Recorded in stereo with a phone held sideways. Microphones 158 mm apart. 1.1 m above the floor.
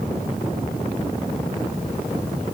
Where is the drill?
No drill in this recording.